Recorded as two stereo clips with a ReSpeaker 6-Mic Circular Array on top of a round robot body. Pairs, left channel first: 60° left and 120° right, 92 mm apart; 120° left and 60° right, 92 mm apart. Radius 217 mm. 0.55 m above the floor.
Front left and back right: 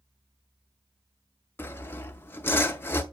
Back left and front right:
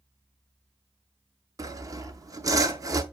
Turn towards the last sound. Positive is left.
turn(degrees=-5)